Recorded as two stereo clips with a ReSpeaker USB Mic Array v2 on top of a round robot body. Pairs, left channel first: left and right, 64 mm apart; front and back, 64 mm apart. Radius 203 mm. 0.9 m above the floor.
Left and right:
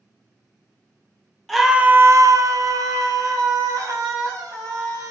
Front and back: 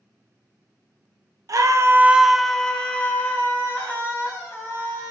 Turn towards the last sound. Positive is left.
turn(degrees=-60)